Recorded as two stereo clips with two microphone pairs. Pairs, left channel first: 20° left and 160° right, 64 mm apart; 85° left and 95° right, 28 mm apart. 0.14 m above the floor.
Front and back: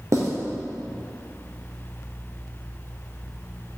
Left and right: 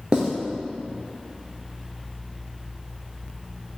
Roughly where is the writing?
Behind right.